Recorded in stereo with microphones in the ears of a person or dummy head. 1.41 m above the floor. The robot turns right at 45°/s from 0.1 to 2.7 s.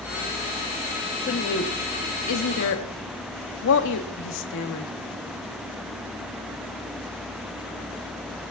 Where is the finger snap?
I don't hear a finger snap.